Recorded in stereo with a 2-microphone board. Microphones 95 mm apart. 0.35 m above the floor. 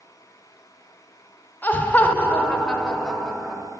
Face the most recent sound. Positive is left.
turn(degrees=5)  # may be behind; listen again after turning